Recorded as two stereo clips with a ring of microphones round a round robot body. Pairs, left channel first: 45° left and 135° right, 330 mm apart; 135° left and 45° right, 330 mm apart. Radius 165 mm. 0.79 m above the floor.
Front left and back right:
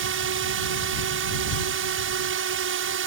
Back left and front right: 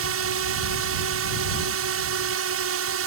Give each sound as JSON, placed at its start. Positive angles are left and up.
{"t": 0.0, "sound": "a drone", "azimuth_deg": -85}